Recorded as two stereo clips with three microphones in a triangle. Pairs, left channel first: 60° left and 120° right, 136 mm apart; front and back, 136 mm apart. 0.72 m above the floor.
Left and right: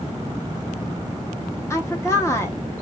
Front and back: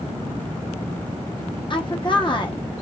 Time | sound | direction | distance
1.7 | a woman speaking | 5° left | 0.9 m